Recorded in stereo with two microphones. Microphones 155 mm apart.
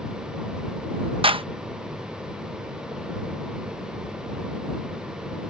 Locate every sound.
1.2 s a clap: 35° right (ahead or behind)